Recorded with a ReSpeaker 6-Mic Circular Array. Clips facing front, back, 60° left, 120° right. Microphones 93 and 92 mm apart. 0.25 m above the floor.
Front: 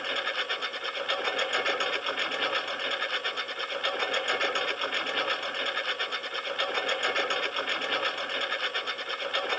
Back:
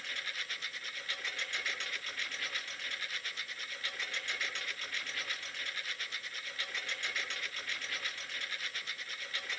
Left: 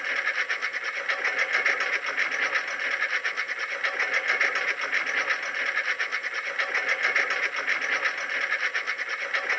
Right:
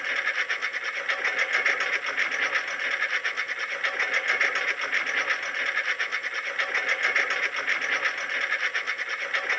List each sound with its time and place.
0.0 s a lawn mower: 30° right